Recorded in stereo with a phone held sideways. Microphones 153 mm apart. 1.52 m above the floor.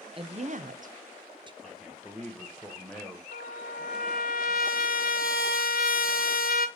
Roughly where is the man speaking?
Centre.